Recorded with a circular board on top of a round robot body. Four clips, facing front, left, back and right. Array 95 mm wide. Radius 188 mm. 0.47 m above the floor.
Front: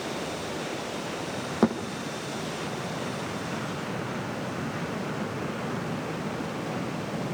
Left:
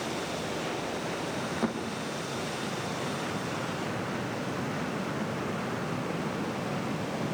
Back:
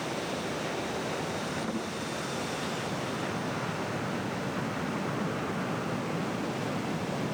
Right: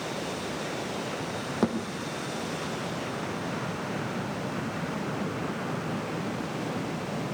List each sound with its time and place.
1.6 s a thud: 25° right, 5 m